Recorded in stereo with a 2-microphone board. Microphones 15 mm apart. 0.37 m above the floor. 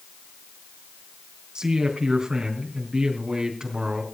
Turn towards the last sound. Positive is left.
turn(degrees=-55)  # may be behind; listen again after turning